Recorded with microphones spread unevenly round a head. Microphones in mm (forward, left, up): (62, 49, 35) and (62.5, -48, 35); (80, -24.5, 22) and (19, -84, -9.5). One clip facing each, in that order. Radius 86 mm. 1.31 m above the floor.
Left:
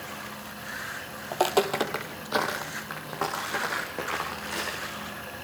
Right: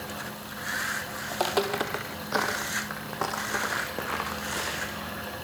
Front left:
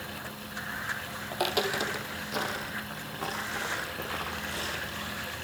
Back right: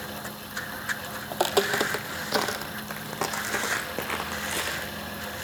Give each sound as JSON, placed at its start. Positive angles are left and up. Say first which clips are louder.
{"t": 1.3, "sound": "footsteps", "louder": "left 3 dB, back right 5 dB", "azimuth_deg": 140, "distance_m": 1.6}